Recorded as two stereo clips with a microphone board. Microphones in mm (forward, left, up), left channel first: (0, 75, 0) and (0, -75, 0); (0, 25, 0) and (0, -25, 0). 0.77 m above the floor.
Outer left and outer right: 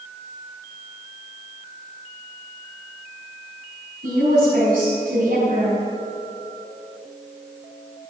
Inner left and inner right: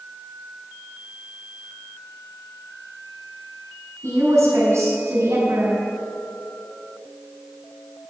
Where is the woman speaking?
75° right (ahead or behind), 5.5 m.